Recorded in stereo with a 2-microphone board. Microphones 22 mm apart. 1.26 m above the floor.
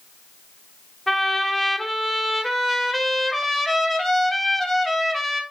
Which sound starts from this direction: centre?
A trumpet, at 1.1 s.